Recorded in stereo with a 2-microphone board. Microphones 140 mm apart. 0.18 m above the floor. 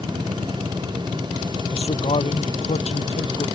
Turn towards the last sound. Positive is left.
turn(degrees=55)  # may be behind; listen again after turning